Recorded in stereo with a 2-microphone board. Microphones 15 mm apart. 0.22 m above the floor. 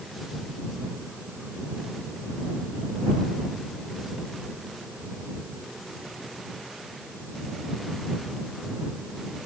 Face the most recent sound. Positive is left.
No sound to turn to.